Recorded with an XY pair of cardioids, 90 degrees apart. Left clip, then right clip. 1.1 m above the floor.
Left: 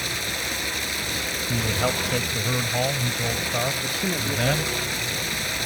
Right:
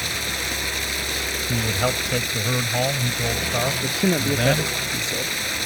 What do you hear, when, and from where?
0.0 s running water: 15° right
1.5 s a man speaking: 15° right
3.8 s a man speaking: 55° right